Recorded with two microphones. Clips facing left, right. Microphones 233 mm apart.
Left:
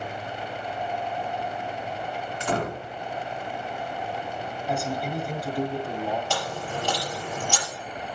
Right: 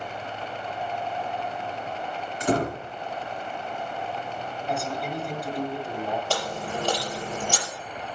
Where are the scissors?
No scissors in this recording.